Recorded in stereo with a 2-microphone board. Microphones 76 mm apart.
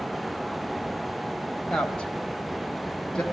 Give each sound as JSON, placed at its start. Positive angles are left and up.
{"t": 1.7, "sound": "a woman speaking", "side_deg": 10, "distance_m": 1.3}